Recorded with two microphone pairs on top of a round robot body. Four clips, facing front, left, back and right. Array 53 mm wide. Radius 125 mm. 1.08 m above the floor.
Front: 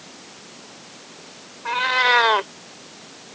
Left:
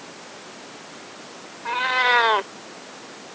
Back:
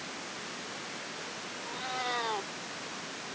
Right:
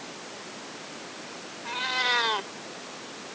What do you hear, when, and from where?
1.6 s a cat meowing: 45° left